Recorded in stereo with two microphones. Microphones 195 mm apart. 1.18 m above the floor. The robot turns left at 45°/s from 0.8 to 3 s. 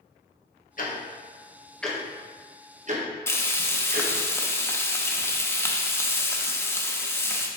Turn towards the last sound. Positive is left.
turn(degrees=15)  # may be behind; listen again after turning